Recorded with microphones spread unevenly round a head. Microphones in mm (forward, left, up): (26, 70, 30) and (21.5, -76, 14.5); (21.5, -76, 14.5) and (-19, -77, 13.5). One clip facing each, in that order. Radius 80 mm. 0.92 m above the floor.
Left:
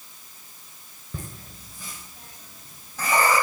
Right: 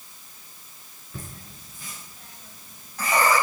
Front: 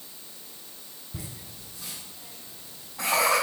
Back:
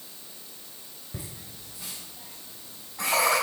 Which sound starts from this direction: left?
Laughter, at 1.1 s.